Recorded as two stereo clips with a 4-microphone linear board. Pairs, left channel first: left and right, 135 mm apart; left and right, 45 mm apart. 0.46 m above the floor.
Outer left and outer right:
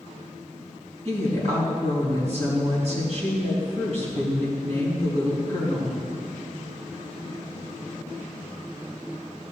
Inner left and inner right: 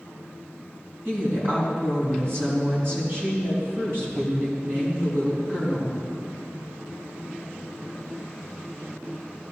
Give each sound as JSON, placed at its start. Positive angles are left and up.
{"t": 1.1, "sound": "a woman speaking", "side_deg": -55, "distance_m": 4.5}